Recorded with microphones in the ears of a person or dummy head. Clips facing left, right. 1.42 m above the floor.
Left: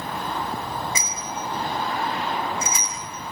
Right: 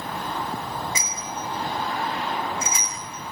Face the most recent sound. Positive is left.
turn(degrees=60)  # may be behind; listen again after turning